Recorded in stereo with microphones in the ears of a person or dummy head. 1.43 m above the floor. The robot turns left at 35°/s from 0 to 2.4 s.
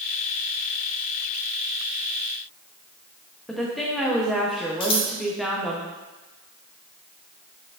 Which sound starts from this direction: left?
Scissors, at 4.8 s.